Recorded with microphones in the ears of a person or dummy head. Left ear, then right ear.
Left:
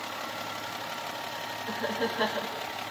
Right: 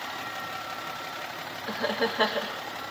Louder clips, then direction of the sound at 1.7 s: Right 4 dB; 25° right (ahead or behind).